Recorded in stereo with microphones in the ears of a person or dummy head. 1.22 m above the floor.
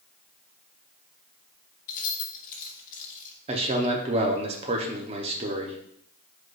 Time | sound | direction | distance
1.9 | keys jangling | 40° left (ahead or behind) | 0.9 m
3.5 | a man speaking | 25° right (ahead or behind) | 0.6 m